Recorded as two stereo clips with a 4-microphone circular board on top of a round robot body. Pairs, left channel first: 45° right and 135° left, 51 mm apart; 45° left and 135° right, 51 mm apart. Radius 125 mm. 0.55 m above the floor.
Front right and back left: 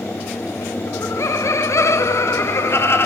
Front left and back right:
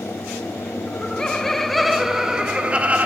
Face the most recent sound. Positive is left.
turn(degrees=-75)